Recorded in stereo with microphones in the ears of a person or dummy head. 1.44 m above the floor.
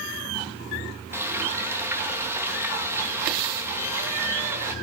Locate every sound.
1.1 s frying: 10° right (ahead or behind), 2 m